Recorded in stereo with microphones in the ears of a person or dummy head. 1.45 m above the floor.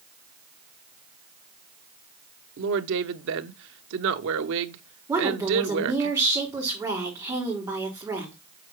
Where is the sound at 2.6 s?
65° right (ahead or behind), 0.8 m.